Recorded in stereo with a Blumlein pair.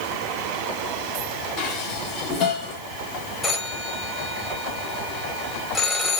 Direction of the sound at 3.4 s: 5° left.